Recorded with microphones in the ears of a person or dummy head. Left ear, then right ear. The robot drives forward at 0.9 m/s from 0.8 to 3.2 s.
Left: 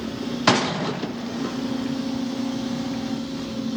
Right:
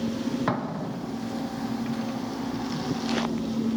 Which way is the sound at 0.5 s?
60° left (ahead or behind).